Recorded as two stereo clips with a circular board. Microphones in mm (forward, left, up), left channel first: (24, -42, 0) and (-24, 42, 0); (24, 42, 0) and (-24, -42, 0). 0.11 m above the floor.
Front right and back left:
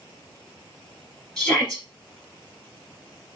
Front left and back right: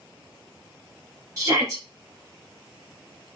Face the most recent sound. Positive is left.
turn(degrees=-140)